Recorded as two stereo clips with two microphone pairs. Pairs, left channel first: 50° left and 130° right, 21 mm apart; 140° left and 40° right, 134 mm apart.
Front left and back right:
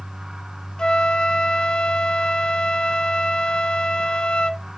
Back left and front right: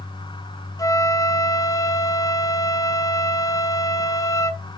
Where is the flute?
80° left, 0.7 m.